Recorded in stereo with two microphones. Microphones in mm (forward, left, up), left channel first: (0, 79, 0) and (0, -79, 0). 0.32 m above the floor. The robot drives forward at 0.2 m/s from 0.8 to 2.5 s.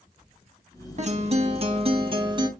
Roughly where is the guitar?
Right.